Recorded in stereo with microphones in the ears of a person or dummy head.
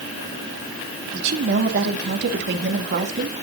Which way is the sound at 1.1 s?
55° right (ahead or behind).